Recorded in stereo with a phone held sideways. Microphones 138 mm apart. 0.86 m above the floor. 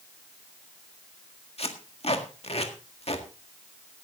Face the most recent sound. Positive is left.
turn(degrees=45)  # may be behind; listen again after turning